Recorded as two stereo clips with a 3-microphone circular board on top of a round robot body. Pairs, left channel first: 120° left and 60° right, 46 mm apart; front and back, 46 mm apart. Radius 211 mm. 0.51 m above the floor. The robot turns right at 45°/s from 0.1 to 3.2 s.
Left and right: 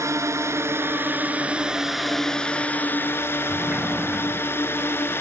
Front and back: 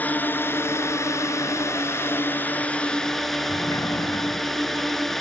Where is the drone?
55° right; by 5.2 s 85° left.